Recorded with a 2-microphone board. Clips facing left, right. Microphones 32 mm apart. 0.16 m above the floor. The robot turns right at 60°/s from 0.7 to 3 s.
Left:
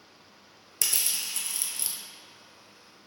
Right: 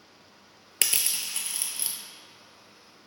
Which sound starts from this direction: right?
Crushing, at 0.8 s.